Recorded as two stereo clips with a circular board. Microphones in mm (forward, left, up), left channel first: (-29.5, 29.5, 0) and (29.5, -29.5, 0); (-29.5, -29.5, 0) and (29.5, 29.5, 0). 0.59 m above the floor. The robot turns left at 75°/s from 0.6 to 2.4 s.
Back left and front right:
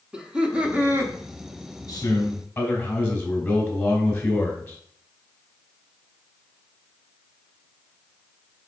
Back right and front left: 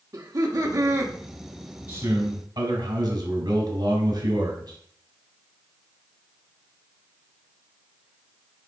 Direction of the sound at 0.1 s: 30° left.